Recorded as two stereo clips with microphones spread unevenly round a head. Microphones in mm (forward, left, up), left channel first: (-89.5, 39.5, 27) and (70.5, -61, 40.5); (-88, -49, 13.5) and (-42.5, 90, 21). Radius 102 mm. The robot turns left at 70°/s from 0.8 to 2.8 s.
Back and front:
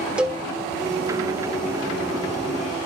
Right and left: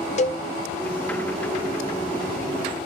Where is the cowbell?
110° right, 0.7 m.